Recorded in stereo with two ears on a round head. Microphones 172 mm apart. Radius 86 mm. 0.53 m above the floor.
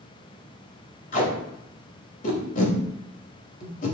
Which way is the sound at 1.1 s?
45° left (ahead or behind).